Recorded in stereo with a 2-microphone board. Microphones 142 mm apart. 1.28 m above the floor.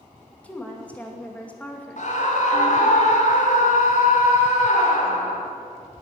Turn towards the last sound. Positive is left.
turn(degrees=60)  # may be behind; listen again after turning